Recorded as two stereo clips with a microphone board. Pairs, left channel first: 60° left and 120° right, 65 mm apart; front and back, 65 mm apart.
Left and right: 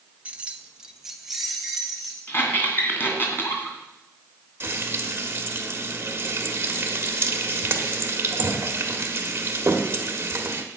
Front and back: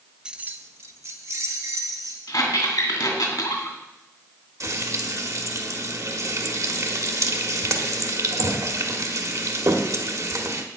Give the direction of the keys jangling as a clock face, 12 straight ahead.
4 o'clock.